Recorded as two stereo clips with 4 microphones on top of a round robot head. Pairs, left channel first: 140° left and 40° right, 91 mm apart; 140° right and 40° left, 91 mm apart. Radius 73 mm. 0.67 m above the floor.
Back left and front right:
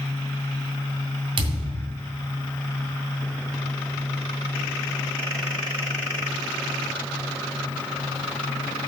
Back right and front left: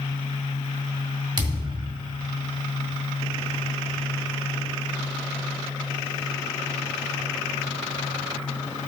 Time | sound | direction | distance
1.4 | a thud | 5° right | 1.5 m